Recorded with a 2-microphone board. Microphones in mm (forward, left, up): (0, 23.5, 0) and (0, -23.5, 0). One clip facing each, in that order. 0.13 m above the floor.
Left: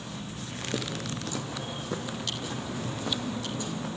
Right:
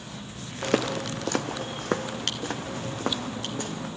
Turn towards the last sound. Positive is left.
turn(degrees=-60)  # may be behind; listen again after turning